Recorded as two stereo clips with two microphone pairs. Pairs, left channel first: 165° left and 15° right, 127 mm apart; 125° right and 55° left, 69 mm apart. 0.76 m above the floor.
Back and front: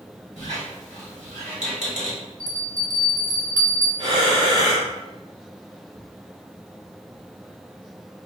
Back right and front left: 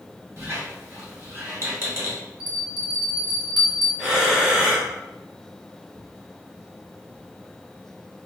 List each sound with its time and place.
0.4 s a squeak: straight ahead, 1.1 m
2.4 s a bell: 80° right, 0.9 m
4.0 s breathing: 20° right, 0.8 m